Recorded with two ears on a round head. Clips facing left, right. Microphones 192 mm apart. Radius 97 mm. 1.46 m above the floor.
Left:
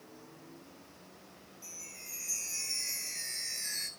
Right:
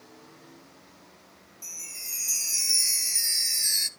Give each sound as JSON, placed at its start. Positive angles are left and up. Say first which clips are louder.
{"t": 1.6, "sound": "a chime", "louder": "right 1 dB", "side_deg": -50, "distance_m": 0.6}